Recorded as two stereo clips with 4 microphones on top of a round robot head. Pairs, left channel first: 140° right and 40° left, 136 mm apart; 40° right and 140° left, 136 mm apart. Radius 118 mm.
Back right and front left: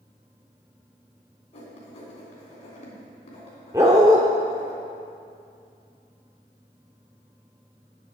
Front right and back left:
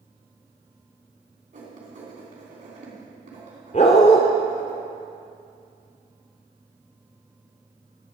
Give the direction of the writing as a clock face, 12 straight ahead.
6 o'clock.